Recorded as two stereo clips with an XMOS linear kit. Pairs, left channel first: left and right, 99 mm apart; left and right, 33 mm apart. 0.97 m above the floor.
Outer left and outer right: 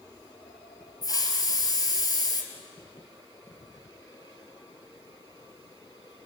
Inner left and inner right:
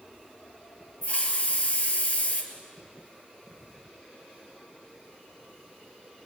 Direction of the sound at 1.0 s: 40° left (ahead or behind).